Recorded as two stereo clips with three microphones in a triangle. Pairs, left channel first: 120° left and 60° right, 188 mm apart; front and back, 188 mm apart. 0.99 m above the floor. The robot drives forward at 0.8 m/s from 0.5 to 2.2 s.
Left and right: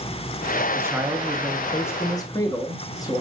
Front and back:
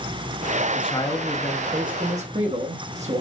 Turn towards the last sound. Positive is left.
turn(degrees=180)